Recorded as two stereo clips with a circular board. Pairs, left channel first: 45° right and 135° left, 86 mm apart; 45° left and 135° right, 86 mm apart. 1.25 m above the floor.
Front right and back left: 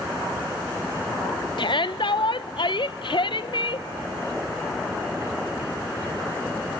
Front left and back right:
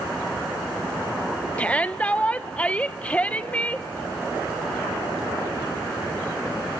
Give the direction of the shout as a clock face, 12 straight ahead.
1 o'clock.